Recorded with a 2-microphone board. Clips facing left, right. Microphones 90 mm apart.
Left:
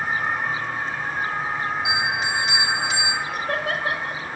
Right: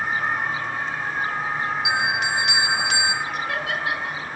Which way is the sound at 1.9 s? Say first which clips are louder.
Right 1 dB; 70° right (ahead or behind).